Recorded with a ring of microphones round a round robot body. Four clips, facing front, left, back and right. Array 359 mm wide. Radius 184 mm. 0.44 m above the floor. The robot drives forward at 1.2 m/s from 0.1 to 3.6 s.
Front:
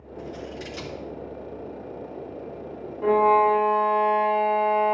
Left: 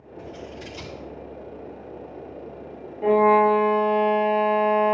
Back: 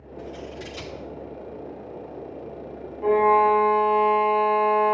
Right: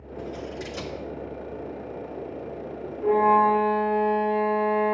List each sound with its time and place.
0.2 s scissors: 70° right, 4 m; by 0.9 s 80° right, 4 m
3.0 s a violin: 60° left, 0.8 m; by 5.0 s 115° left, 0.7 m